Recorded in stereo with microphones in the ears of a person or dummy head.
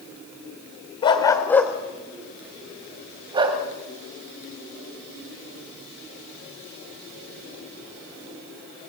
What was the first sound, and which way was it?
A dog barking, 25° left (ahead or behind).